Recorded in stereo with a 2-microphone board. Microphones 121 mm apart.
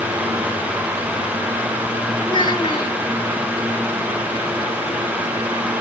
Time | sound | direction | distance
2.2 | a child speaking | 35° left (ahead or behind) | 1.5 m